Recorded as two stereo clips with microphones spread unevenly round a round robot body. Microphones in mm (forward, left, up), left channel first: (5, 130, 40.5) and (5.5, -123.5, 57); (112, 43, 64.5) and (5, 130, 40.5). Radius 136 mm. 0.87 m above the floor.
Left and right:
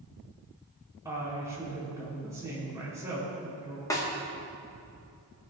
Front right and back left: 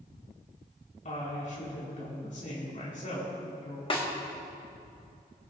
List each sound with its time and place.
1.1 s a woman speaking: 10° right, 4.5 m
3.9 s a snare drum: 15° left, 2.0 m